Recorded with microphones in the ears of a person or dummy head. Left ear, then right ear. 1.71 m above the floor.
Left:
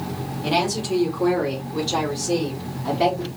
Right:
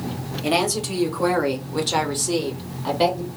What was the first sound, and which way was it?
A woman speaking, 30° right (ahead or behind).